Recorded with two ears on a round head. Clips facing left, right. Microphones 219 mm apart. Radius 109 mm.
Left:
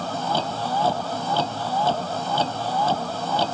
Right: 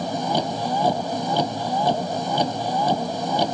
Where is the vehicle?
15° right (ahead or behind).